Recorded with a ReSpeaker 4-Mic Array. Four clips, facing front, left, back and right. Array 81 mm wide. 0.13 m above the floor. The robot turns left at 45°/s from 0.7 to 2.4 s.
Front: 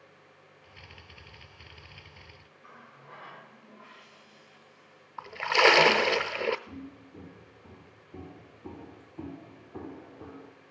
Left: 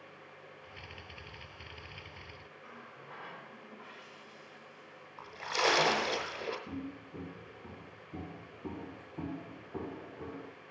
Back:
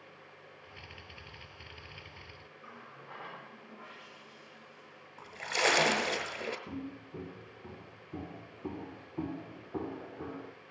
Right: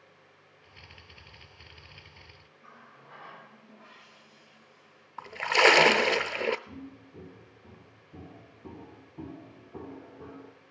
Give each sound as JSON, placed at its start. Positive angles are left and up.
{"t": 2.6, "sound": "a running tap", "azimuth_deg": 165, "distance_m": 9.0}
{"t": 5.2, "sound": "a splash", "azimuth_deg": -65, "distance_m": 0.7}
{"t": 6.7, "sound": "footsteps", "azimuth_deg": 145, "distance_m": 3.5}